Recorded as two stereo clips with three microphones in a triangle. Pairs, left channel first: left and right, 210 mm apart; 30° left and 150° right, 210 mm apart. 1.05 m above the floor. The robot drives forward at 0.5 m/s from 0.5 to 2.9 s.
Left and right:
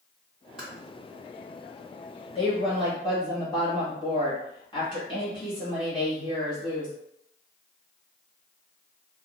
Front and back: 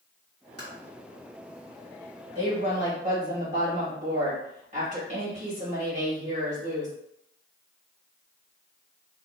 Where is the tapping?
5° right, 1.8 m.